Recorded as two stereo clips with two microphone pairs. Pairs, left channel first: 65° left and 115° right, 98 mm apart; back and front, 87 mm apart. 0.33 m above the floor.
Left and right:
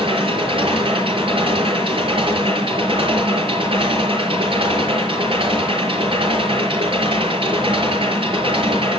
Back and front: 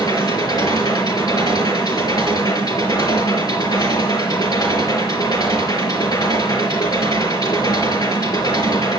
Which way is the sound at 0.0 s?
140° right.